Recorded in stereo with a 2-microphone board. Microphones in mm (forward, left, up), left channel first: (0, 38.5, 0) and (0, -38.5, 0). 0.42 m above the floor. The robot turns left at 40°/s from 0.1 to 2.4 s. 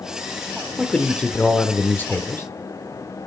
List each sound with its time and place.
0.8 s a man speaking: 5° left (ahead or behind), 0.9 m; by 2.5 s 30° left (ahead or behind), 0.9 m